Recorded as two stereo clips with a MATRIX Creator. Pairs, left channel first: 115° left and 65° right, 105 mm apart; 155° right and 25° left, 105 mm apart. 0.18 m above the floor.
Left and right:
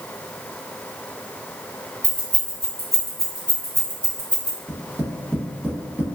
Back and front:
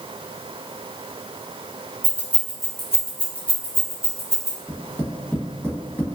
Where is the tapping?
115° right, 0.9 m.